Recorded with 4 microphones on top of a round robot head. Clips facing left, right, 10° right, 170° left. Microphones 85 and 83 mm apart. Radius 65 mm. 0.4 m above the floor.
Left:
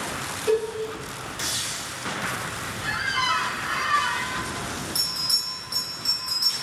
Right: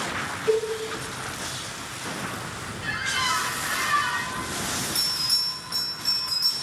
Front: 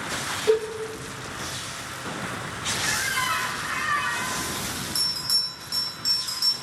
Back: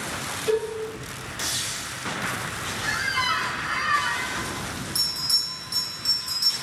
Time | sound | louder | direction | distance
0.5 | a cowbell | even, front 3 dB | 10° left | 2 m
2.8 | a squeak | left 2 dB, back 2 dB | 100° left | 0.7 m
5.0 | a bell | right 1 dB, even | 5° left | 1.2 m